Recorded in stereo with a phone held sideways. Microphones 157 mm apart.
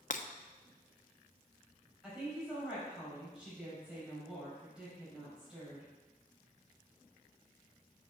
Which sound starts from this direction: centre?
A woman speaking, at 2.0 s.